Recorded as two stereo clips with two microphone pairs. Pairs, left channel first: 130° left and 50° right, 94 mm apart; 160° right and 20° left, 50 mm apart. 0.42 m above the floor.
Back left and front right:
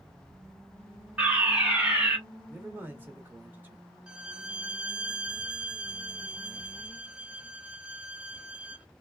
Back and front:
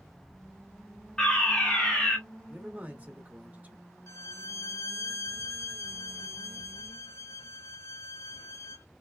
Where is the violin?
135° right, 0.5 m.